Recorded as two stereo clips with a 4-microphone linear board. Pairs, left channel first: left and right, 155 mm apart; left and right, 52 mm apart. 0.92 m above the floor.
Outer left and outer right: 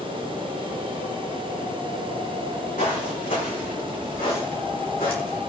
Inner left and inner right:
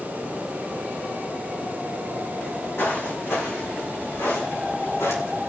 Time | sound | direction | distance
2.4 | footsteps | 60° left (ahead or behind) | 5 m